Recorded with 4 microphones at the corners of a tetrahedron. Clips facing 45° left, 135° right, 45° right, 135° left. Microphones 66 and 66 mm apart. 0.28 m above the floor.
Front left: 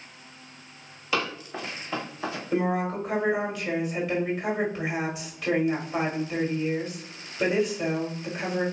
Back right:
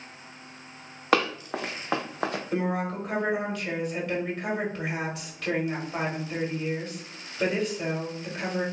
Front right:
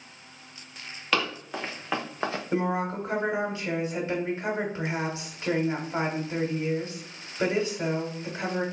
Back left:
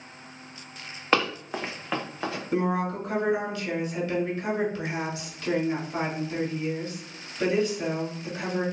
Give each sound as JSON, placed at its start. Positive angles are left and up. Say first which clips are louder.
{"t": 1.1, "sound": "running footsteps", "louder": "back right 5 dB, back left 3 dB", "azimuth_deg": -165, "distance_m": 1.0}
{"t": 2.5, "sound": "a woman speaking", "louder": "front left 6 dB, back left 2 dB", "azimuth_deg": -35, "distance_m": 1.2}